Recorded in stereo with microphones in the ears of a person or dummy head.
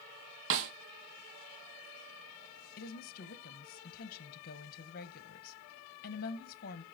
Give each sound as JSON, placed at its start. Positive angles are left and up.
{"t": 0.5, "sound": "a snare drum", "side_deg": -70, "distance_m": 1.5}
{"t": 2.8, "sound": "a woman speaking", "side_deg": 50, "distance_m": 1.5}